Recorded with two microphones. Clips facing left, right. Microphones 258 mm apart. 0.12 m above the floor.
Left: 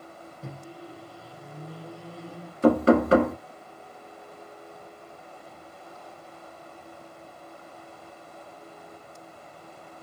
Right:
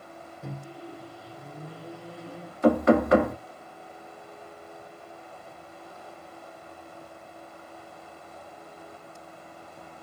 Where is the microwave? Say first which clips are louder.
Right 2 dB; centre (ahead or behind), 0.8 m.